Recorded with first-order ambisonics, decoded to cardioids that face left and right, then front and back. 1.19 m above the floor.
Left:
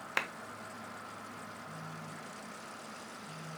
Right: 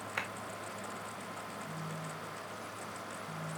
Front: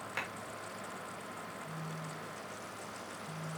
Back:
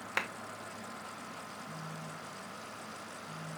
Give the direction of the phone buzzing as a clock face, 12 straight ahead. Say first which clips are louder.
Right 3 dB, even; 12 o'clock.